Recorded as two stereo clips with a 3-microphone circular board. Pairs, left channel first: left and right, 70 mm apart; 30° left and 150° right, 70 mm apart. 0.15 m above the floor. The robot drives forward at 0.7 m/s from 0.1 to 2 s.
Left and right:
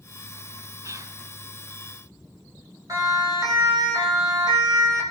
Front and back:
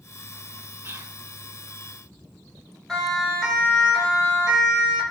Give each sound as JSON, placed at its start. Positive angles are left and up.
{"t": 0.8, "sound": "whispering", "azimuth_deg": -105, "distance_m": 2.0}
{"t": 2.9, "sound": "a siren", "azimuth_deg": -60, "distance_m": 9.5}